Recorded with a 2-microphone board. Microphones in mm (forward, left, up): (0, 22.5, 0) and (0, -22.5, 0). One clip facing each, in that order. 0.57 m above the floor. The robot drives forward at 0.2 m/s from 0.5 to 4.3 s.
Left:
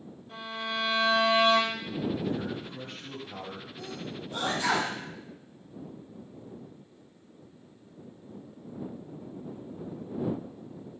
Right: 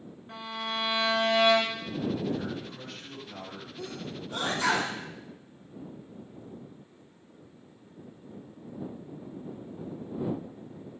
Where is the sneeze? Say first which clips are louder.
Right 2 dB; 55° right (ahead or behind), 2.5 m.